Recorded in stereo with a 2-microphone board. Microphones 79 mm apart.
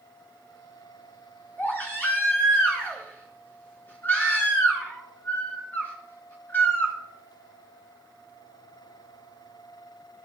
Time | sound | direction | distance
1.6 | a baby crying | 25° left (ahead or behind) | 3 m